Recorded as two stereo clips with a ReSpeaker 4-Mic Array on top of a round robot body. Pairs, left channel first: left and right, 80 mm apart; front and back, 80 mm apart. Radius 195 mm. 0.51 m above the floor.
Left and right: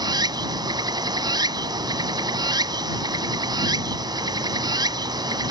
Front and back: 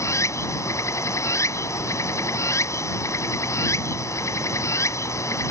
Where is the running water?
55° right.